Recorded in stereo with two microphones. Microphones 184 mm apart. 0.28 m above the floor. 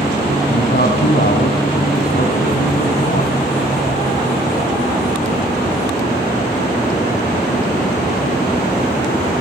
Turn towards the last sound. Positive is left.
turn(degrees=60)  # may be behind; listen again after turning